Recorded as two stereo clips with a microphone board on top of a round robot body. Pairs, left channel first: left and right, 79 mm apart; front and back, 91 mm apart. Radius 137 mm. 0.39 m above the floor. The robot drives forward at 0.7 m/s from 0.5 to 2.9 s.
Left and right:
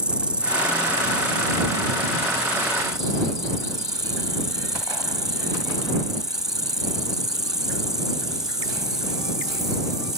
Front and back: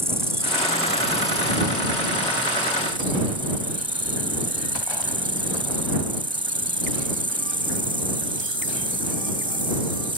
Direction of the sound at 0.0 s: 155° right.